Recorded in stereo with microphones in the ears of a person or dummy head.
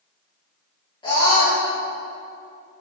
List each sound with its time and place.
1.0 s a scream: 25° left (ahead or behind), 1.3 m